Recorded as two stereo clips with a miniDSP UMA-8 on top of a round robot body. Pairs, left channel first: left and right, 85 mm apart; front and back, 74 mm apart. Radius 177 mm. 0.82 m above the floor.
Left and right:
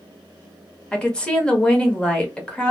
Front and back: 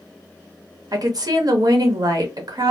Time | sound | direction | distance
0.9 | a woman speaking | 170° left | 1.1 m